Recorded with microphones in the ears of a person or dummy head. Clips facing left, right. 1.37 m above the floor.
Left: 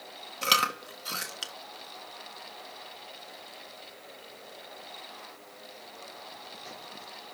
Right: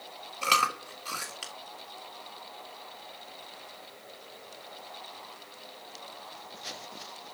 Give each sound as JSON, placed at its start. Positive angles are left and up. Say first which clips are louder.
{"t": 0.4, "sound": "chewing", "louder": "right 1 dB", "side_deg": 15, "distance_m": 1.4}